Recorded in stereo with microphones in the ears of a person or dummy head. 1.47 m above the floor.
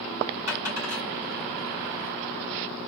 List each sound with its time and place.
0.5 s a dropped coin: 15° right (ahead or behind), 1.6 m